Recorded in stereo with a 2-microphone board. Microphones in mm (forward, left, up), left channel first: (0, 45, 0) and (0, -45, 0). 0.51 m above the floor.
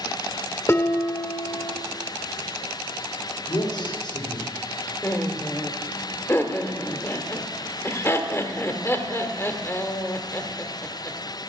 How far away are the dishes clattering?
About 0.9 m.